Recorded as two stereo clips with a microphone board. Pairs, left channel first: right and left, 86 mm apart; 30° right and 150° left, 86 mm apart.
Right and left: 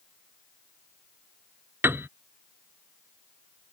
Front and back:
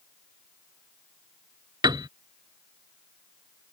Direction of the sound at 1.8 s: 145° left.